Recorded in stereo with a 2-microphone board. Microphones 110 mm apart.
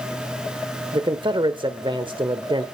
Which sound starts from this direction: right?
A man speaking, at 0.9 s.